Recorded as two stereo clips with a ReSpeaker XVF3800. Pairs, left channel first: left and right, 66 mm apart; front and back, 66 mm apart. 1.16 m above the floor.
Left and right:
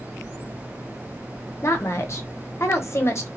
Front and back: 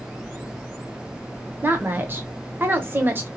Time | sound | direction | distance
1.6 | a woman speaking | 130° left | 0.7 m